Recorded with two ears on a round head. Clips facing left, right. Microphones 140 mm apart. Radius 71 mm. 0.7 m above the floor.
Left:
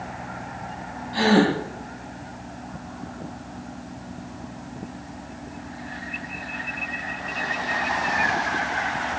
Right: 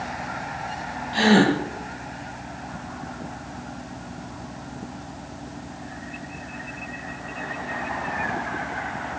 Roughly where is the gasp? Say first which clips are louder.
Right 1 dB; right.